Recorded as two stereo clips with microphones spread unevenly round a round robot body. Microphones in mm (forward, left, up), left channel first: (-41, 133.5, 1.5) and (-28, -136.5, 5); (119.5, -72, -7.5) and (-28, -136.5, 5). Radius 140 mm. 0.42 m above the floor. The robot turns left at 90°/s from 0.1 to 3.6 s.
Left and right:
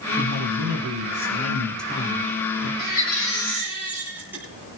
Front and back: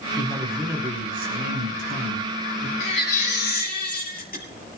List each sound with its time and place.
0.2 s a man speaking: 35° right, 6 m; by 2.7 s 100° left, 6 m
2.8 s a baby crying: 70° left, 8.5 m; by 4.4 s 5° right, 8.5 m